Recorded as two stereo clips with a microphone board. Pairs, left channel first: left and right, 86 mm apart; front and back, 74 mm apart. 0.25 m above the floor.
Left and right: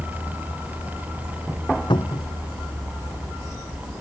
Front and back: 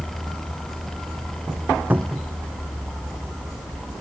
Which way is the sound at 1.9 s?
115° left.